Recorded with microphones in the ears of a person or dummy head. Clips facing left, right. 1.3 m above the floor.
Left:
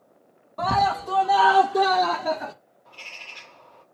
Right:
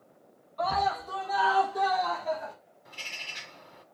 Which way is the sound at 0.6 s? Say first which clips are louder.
Left 5 dB; 60° left (ahead or behind).